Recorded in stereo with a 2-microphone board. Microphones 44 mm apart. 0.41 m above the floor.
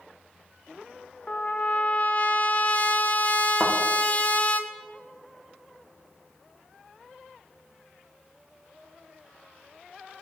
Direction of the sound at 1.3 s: 35° left (ahead or behind).